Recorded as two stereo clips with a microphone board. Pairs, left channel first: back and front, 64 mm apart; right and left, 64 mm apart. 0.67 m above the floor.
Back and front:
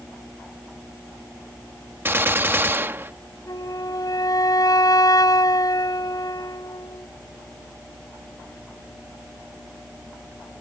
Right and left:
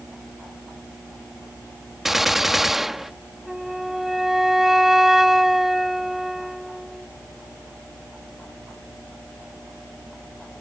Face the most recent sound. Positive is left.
turn(degrees=175)